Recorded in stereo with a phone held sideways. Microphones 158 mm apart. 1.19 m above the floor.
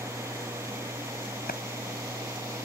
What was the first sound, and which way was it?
A machine running, 15° right (ahead or behind).